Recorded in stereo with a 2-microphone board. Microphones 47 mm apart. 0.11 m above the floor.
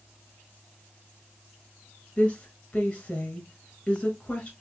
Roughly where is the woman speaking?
Centre.